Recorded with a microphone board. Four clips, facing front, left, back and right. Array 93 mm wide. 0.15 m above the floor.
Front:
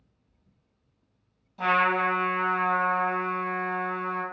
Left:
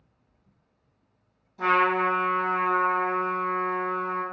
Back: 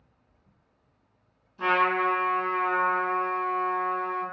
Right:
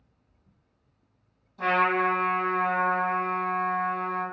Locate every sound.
1.6 s a trumpet: 10° left, 1.3 m